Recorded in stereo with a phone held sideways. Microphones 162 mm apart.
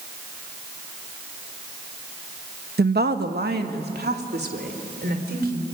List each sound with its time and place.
2.8 s a woman speaking: 80° right, 1.0 m